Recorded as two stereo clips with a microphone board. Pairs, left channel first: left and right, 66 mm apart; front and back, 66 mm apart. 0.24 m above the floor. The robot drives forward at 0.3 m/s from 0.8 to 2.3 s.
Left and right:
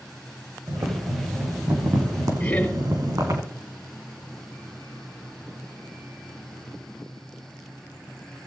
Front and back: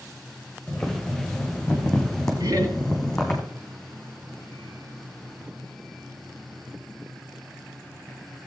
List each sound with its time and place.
0.7 s boiling: 70° right, 3 m; by 3.4 s 80° right, 2.5 m
2.4 s laughter: 160° left, 3.5 m